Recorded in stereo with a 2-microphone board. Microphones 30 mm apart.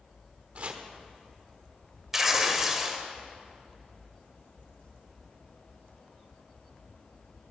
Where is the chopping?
45° right (ahead or behind), 1.2 m.